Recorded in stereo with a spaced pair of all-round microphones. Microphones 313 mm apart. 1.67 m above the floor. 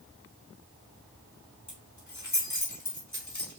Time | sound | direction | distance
1.7 | keys jangling | 60° left (ahead or behind) | 3 m